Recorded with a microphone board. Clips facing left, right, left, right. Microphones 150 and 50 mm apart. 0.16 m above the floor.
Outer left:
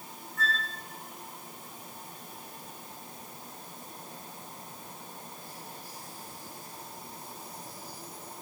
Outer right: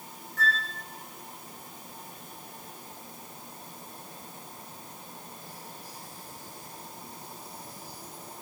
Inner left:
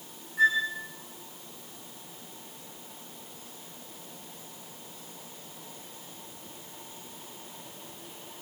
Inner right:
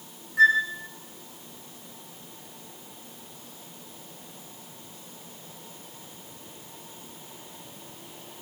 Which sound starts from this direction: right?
A flute, at 0.4 s.